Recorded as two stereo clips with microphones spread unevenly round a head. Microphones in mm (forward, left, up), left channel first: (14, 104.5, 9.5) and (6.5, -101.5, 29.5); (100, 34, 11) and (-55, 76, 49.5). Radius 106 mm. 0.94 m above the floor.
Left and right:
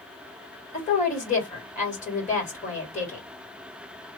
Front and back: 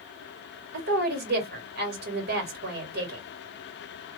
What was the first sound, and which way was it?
A woman speaking, 140° left.